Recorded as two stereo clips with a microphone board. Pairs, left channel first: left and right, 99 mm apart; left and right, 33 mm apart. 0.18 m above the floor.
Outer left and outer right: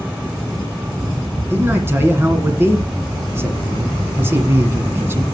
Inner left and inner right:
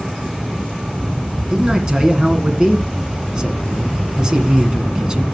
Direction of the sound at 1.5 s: 25° right (ahead or behind).